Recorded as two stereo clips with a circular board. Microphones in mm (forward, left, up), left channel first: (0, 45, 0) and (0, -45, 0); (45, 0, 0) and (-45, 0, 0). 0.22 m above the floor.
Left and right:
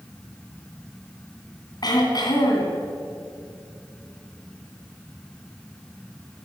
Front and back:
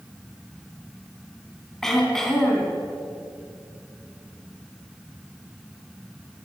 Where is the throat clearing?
85° left, 2.5 m.